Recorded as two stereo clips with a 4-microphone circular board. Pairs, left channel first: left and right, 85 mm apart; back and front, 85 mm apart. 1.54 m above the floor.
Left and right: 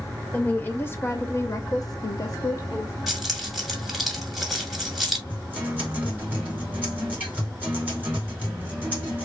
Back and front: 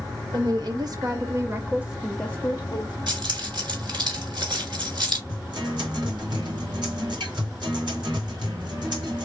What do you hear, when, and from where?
0.3 s a woman speaking: 20° left, 1.6 m; by 3.0 s 145° left, 1.0 m
3.1 s keys jangling: 5° right, 2 m
5.3 s a guitar: 20° right, 2.5 m